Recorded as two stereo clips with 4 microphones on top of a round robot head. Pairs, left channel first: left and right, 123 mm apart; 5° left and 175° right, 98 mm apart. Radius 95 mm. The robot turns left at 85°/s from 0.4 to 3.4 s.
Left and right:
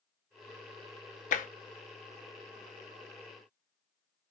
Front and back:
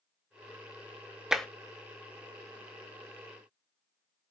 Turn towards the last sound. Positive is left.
turn(degrees=-80)